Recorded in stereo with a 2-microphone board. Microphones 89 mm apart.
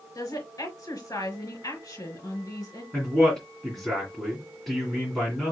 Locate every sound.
0.1 s a woman speaking: 40° left (ahead or behind), 4 m
2.9 s a man speaking: centre (ahead or behind), 2.5 m